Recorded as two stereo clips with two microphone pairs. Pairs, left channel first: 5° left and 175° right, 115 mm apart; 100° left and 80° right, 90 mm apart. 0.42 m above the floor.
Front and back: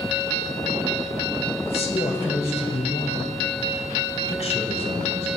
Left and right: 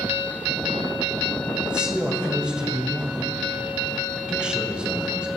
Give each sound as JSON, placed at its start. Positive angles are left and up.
{"t": 1.6, "sound": "a man speaking", "azimuth_deg": -5, "distance_m": 2.0}